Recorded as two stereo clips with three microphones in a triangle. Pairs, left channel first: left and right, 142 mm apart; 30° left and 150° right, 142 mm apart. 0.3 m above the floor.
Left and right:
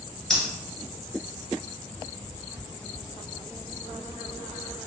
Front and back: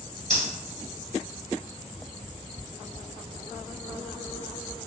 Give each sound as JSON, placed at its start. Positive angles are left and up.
{"t": 0.3, "sound": "breathing", "azimuth_deg": 180, "distance_m": 1.3}